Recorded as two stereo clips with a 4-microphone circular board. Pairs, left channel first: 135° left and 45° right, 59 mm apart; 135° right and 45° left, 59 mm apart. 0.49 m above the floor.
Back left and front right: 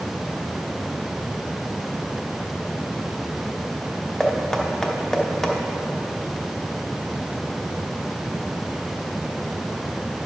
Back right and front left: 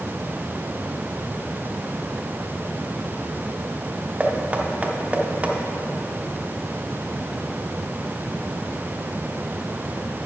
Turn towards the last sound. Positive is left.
turn(degrees=70)